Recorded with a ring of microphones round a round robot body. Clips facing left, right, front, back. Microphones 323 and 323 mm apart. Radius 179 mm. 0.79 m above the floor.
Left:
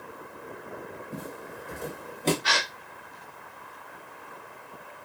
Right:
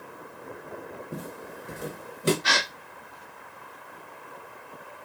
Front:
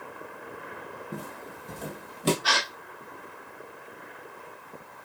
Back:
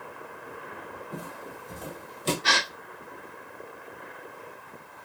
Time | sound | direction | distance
1.1 | footsteps | 50° right | 1.3 m
2.4 | a gasp | 115° right | 0.6 m